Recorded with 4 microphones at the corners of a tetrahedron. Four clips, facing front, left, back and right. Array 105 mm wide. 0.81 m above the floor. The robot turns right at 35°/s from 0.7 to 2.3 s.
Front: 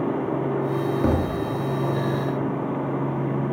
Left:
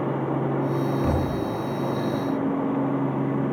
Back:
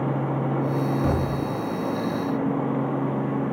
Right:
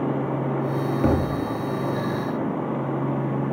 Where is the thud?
80° right, 5.5 m; by 1.4 s 65° right, 5.5 m.